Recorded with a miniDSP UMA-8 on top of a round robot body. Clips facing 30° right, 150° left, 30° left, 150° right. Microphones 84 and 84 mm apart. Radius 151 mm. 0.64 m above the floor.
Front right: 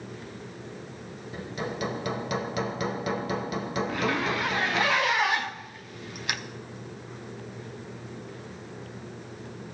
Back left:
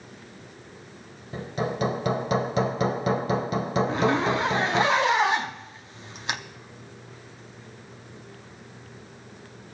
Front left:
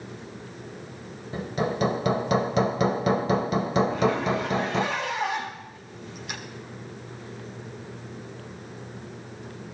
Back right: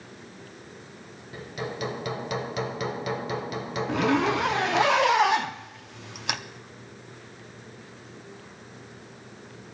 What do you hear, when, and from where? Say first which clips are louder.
1.3 s hammering: back left 5 dB, front left 7 dB; 90° left, 0.8 m
3.9 s a zipper: back left 4 dB, back right 1 dB; 150° right, 0.9 m